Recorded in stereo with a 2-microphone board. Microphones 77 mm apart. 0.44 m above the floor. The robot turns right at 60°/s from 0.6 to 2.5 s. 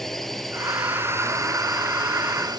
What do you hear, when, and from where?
0.0 s a drone: 5° left (ahead or behind); by 2.6 s 60° right (ahead or behind)